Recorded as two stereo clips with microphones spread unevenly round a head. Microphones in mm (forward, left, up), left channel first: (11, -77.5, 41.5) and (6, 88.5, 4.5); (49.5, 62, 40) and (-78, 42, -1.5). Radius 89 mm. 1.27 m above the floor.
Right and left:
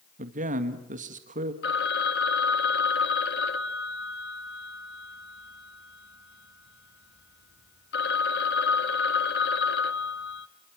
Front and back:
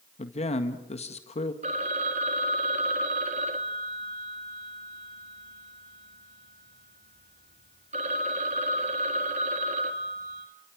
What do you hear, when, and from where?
0.2 s a man speaking: 50° left, 1.8 m
1.6 s a phone ringing: 115° right, 1.4 m